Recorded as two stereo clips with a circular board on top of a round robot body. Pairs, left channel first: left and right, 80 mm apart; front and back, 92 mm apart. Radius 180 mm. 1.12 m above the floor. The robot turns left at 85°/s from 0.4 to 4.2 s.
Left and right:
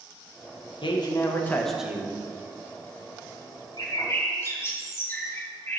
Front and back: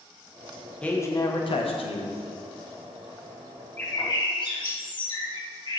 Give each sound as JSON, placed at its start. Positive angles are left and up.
{"t": 0.8, "sound": "a man speaking", "azimuth_deg": 80, "distance_m": 1.4}
{"t": 3.8, "sound": "a bird", "azimuth_deg": 70, "distance_m": 2.0}